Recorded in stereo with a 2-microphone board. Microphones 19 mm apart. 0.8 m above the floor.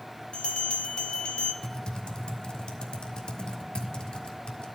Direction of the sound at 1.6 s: 70° left (ahead or behind).